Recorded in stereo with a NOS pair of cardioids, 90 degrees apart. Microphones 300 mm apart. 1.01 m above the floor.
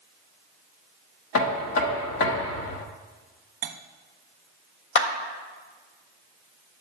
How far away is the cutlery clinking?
About 0.8 m.